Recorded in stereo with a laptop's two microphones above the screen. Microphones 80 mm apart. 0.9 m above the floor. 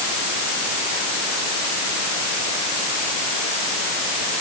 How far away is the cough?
No cough in this recording.